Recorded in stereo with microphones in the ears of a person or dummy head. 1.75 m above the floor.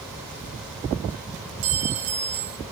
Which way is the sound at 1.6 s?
40° right (ahead or behind).